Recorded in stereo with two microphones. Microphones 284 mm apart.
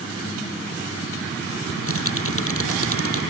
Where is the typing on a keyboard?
50° left (ahead or behind).